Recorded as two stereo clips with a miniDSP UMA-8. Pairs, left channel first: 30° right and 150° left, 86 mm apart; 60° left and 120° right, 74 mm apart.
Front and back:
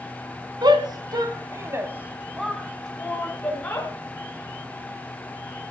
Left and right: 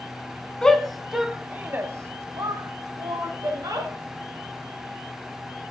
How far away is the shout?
About 1.9 m.